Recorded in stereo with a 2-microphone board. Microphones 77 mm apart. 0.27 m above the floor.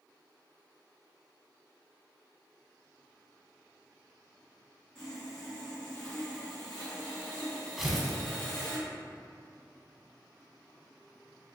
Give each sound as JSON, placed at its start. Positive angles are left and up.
{"t": 5.0, "sound": "sawing", "side_deg": 15, "distance_m": 1.9}
{"t": 7.8, "sound": "tearing paper", "side_deg": -5, "distance_m": 0.5}